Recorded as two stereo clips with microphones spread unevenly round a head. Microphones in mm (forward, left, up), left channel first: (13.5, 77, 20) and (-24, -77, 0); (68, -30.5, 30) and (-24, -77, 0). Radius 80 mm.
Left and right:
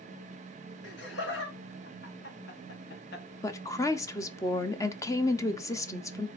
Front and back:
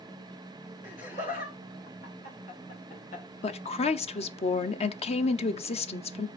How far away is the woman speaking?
About 0.9 m.